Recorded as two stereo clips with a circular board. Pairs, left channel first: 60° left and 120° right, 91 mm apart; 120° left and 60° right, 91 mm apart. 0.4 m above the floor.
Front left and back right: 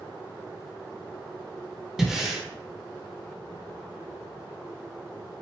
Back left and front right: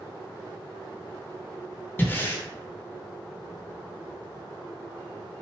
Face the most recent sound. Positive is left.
turn(degrees=160)